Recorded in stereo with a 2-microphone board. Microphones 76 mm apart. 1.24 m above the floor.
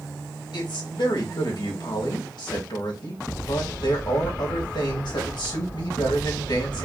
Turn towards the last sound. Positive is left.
turn(degrees=70)  # may be behind; listen again after turning